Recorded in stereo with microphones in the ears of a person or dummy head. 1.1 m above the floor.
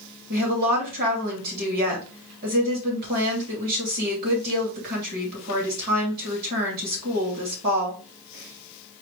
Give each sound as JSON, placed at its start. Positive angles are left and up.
{"t": 0.3, "sound": "a woman speaking", "side_deg": -50, "distance_m": 2.5}